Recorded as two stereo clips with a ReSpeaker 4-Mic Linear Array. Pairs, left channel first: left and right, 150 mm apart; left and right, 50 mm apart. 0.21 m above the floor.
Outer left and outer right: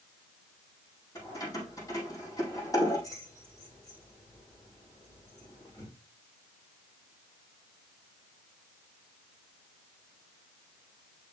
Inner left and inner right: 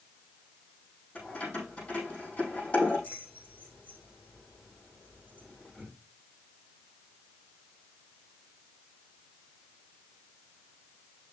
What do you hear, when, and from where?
1.1 s keys jangling: 25° left (ahead or behind), 5 m